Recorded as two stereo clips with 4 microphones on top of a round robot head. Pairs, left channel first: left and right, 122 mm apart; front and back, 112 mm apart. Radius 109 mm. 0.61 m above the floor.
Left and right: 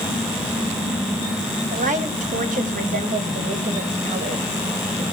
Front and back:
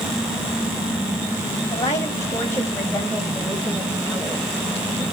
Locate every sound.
1.7 s a woman speaking: 65° right, 3.5 m; by 5.0 s 110° right, 2.5 m